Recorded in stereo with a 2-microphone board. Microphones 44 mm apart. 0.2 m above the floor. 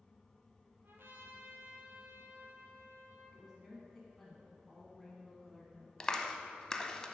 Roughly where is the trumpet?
Right.